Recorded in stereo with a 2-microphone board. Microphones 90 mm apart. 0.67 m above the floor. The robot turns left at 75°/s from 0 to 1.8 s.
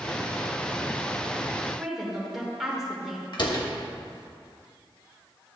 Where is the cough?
No cough in this recording.